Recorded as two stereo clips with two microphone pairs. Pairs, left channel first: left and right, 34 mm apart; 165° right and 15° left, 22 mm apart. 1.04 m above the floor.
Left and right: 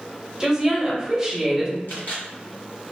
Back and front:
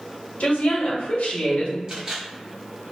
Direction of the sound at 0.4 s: 165° right.